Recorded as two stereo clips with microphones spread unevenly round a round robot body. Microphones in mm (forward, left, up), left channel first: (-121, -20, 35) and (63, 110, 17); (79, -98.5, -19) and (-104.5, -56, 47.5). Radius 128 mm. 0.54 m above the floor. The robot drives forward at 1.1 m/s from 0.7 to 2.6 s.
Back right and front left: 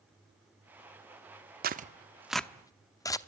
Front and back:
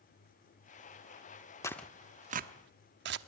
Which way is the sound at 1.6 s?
30° left.